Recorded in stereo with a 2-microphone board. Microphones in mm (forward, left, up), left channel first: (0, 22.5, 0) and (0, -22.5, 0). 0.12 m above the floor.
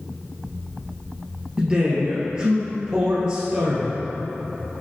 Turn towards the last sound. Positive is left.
turn(degrees=-20)  # may be behind; listen again after turning